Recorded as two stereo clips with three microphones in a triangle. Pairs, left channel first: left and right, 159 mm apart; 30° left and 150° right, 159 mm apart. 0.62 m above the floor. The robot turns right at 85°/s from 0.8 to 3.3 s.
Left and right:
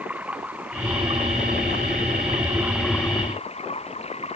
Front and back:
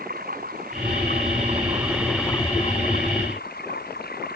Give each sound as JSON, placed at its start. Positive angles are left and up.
{"t": 0.0, "sound": "running water", "azimuth_deg": -170}